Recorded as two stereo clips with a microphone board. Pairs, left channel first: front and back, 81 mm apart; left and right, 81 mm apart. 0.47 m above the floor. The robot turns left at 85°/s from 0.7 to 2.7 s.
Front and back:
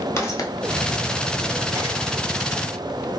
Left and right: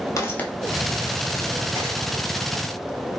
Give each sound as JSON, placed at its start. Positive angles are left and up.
{"t": 0.2, "sound": "footsteps", "azimuth_deg": 55, "distance_m": 0.7}